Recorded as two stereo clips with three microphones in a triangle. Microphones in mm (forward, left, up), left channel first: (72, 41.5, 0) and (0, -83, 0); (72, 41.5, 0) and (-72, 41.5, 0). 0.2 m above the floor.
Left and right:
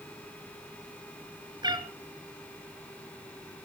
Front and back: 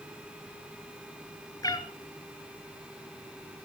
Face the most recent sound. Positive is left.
turn(degrees=-60)